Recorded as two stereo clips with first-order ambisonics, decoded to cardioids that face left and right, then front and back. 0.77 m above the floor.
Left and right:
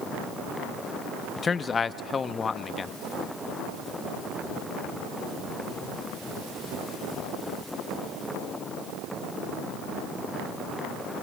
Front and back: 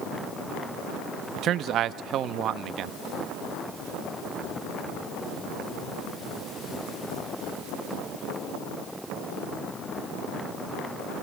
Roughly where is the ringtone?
I don't hear a ringtone.